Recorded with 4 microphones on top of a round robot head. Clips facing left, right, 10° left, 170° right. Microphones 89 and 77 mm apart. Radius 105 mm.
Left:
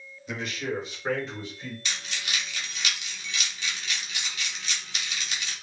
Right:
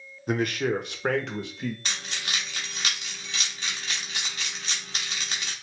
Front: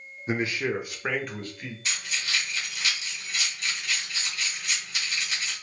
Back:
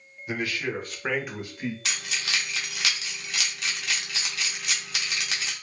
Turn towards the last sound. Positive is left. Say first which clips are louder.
# right 1 dB, back 1 dB
turn(degrees=-145)